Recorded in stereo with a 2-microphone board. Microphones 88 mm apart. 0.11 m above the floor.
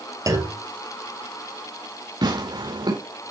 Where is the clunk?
40° right (ahead or behind), 1.3 m.